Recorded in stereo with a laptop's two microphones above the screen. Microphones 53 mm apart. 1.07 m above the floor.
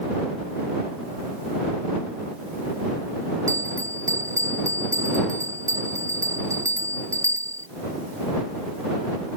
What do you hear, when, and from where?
3.5 s a bell: 80° right